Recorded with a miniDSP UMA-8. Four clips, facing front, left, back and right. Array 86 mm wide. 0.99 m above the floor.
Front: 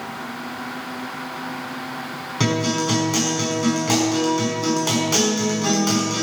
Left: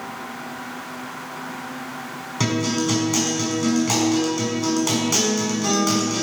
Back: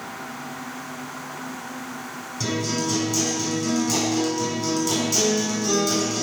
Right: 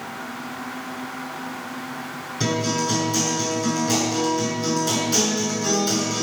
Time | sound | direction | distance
2.4 | a guitar | 45° left | 5.5 m